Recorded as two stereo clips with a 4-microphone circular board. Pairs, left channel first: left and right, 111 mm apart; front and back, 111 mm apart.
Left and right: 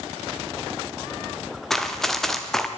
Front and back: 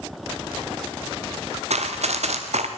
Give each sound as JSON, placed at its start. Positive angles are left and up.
{"t": 1.7, "sound": "running footsteps", "azimuth_deg": 175, "distance_m": 2.5}